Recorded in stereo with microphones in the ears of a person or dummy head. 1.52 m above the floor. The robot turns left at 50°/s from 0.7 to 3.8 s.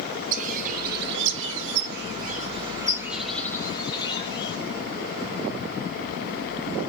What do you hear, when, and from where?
0.3 s a bird: 55° right, 1.5 m; by 4.6 s 150° left, 1.5 m